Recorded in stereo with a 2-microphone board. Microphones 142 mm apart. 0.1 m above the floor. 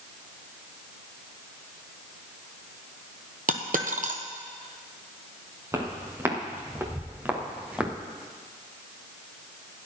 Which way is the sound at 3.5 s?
70° right (ahead or behind).